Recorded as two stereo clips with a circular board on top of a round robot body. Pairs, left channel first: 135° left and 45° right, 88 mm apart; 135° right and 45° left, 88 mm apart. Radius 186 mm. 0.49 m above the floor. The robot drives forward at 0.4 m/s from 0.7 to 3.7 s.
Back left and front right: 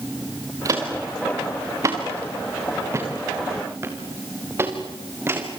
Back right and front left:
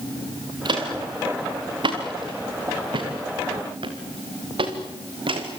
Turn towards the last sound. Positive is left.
turn(degrees=20)